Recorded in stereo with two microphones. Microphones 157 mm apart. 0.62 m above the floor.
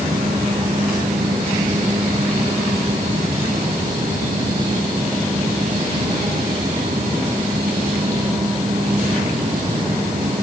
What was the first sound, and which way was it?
Only background noise.